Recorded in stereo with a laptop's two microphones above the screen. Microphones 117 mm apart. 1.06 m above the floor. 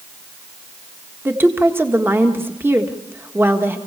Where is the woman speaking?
20° right (ahead or behind), 1.5 m.